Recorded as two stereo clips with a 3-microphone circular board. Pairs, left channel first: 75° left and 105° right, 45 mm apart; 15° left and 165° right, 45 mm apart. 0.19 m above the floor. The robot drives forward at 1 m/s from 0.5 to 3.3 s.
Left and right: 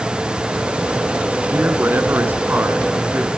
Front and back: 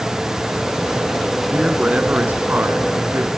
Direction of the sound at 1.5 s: 100° right.